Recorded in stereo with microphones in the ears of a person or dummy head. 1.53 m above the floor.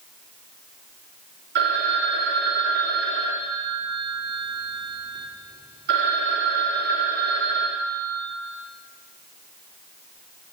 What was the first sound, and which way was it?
A phone ringing, 60° right (ahead or behind).